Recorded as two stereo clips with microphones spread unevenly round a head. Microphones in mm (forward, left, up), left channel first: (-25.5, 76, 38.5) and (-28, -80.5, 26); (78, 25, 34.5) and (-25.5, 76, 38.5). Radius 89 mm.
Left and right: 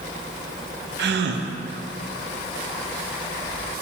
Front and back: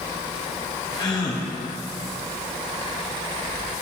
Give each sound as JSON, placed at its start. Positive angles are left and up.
{"t": 1.0, "sound": "a gasp", "azimuth_deg": -90, "distance_m": 0.6}